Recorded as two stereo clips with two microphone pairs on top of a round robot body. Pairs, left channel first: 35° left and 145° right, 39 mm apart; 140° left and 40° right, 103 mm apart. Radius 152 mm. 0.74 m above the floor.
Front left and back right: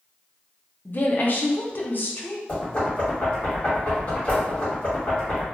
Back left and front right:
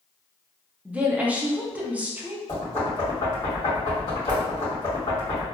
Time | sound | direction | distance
0.8 | a woman speaking | 40° left | 0.9 m
2.5 | knocking | 85° left | 1.9 m